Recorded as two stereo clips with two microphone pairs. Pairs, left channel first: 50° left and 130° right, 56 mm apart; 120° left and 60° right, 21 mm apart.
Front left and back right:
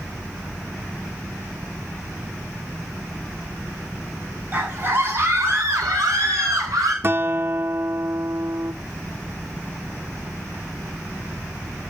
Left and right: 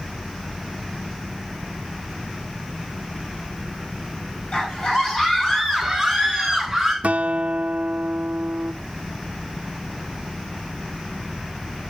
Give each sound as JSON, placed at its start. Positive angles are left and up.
{"t": 4.5, "sound": "a scream", "azimuth_deg": 170, "distance_m": 5.0}
{"t": 7.0, "sound": "a guitar", "azimuth_deg": -85, "distance_m": 0.5}